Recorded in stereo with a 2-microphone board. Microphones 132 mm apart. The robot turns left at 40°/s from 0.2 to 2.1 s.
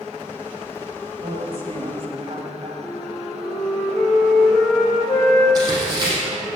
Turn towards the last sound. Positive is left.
turn(degrees=-30)  # may be behind; listen again after turning